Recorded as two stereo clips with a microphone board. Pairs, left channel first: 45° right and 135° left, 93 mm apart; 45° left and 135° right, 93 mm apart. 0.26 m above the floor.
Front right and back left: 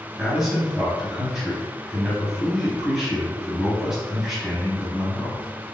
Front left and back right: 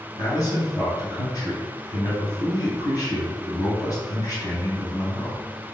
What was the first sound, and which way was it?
A man speaking, 55° left.